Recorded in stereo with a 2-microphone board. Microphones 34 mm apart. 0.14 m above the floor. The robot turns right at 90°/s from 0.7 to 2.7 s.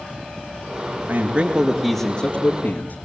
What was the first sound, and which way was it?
A man speaking, 65° right.